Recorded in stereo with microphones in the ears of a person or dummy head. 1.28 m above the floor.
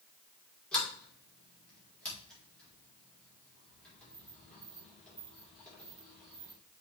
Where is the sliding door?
Centre (ahead or behind), 4 m.